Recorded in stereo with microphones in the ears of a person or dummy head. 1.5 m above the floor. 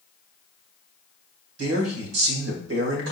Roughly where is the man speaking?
Right.